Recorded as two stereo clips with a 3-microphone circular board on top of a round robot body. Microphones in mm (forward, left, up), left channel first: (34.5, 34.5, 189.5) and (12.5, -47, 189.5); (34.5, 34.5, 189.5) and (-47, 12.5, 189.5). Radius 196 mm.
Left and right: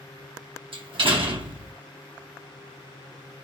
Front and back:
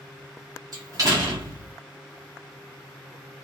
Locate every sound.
0.7 s a door slam: 120° right, 1.3 m